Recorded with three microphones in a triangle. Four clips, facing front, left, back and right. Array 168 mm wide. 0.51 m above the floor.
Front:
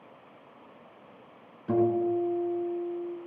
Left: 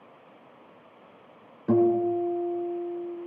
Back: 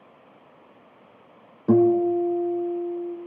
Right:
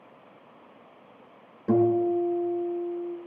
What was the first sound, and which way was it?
A guitar, straight behind.